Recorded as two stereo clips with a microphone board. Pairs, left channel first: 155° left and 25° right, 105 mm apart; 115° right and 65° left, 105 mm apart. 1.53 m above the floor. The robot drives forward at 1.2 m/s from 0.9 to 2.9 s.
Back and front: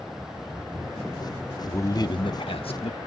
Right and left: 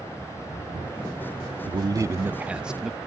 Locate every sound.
1.7 s a man speaking: 90° left; by 3.0 s 155° left